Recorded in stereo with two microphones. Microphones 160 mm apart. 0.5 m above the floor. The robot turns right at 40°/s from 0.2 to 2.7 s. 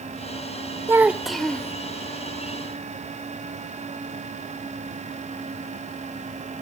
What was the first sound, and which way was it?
A child speaking, 20° right.